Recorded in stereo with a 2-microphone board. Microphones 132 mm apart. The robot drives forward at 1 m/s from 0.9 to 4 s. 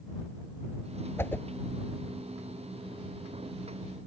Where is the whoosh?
20° left (ahead or behind); by 1.4 s 15° left (ahead or behind).